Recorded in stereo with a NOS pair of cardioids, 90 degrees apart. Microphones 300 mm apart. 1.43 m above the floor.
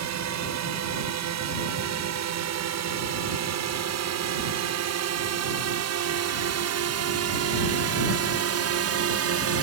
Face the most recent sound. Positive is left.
turn(degrees=-55)